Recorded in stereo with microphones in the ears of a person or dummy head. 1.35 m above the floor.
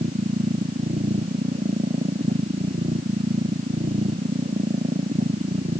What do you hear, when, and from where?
0.0 s a machine running: 40° right (ahead or behind)